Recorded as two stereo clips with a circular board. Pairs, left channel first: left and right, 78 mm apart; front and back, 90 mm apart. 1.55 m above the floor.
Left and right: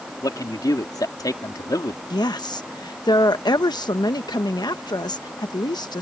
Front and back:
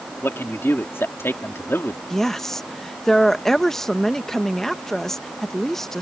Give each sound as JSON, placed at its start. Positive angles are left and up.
{"t": 0.2, "sound": "a man speaking", "azimuth_deg": 60}
{"t": 2.1, "sound": "a woman speaking", "azimuth_deg": 85}